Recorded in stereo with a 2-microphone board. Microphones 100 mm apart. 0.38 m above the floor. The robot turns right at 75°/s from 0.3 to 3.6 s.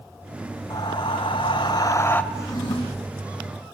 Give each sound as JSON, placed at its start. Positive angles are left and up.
{"t": 0.7, "sound": "breathing", "azimuth_deg": 45, "distance_m": 1.0}
{"t": 2.3, "sound": "a drawer", "azimuth_deg": 25, "distance_m": 7.5}